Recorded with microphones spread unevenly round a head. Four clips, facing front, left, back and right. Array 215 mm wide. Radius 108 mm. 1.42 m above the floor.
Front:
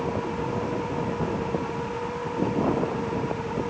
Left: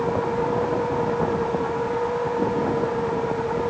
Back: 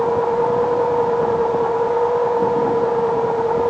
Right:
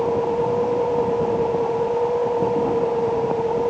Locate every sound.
0.0 s a machine running: 155° right